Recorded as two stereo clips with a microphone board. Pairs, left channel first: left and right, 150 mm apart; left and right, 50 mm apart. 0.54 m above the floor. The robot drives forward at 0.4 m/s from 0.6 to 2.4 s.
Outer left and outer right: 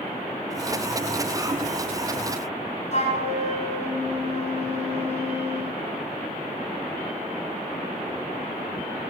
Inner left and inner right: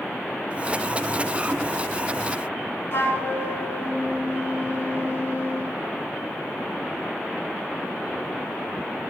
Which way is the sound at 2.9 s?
50° left (ahead or behind).